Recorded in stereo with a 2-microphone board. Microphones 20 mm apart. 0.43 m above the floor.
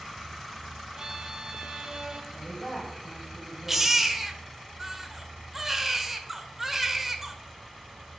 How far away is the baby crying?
About 0.8 m.